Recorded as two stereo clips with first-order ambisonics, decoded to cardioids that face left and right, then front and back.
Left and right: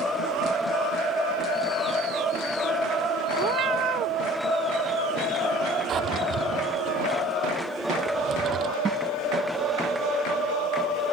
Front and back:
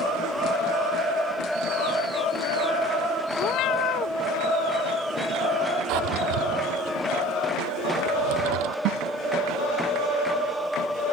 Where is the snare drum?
165° right.